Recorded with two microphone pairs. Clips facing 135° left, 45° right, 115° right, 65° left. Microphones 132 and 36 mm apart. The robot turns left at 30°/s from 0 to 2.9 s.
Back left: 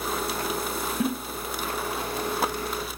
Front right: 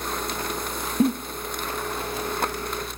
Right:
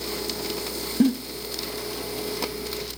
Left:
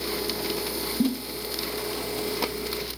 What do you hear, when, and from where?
1.0 s a giggle: 100° right, 0.8 m; by 1.1 s 105° right, 0.8 m